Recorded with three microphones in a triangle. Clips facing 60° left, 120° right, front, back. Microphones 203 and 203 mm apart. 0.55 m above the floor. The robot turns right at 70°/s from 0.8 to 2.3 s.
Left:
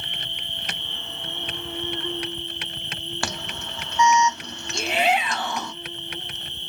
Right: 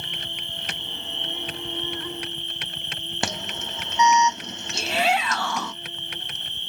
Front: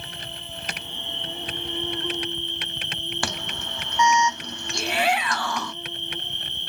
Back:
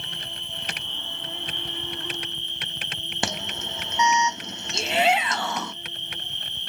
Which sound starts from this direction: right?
An insect, at 0.0 s.